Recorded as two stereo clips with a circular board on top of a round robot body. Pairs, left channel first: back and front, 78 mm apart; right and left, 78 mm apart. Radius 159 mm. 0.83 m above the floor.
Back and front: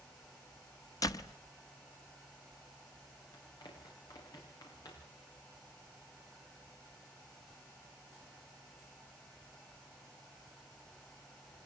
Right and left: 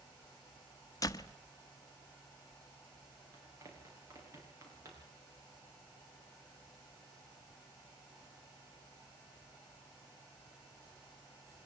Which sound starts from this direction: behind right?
A door slam, at 1.0 s.